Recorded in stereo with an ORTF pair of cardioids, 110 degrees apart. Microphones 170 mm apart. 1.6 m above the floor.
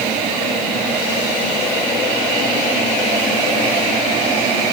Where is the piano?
No piano in this recording.